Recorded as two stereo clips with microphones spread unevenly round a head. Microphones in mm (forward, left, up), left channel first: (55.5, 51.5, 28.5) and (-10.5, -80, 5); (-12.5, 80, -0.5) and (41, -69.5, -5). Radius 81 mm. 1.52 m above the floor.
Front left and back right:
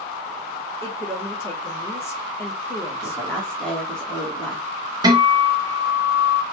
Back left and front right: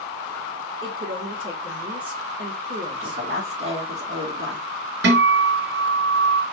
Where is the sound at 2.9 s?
20° right, 1.9 m.